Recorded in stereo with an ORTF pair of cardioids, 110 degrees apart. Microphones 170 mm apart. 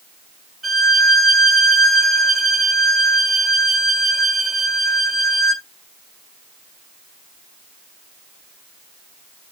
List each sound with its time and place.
0.6 s a violin: straight ahead, 0.8 m